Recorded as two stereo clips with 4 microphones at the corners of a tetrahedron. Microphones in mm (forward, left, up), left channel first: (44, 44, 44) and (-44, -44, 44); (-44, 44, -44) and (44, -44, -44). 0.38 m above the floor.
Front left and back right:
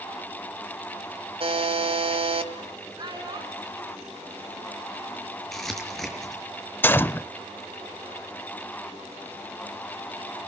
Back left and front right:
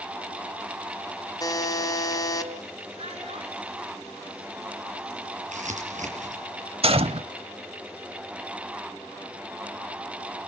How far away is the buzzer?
About 2.5 m.